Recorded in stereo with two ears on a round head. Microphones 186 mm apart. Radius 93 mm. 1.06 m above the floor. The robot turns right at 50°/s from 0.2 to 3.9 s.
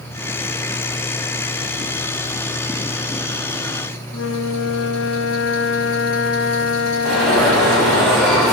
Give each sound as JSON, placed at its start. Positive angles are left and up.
{"t": 4.1, "sound": "a flute", "side_deg": 70, "distance_m": 1.0}
{"t": 7.0, "sound": "an alarm", "side_deg": 0, "distance_m": 6.5}